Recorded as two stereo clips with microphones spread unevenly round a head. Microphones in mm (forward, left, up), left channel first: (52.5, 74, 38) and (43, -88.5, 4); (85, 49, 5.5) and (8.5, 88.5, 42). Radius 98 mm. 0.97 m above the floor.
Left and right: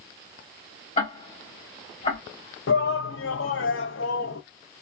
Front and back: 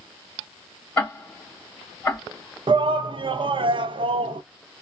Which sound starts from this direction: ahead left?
Ticking, at 1.0 s.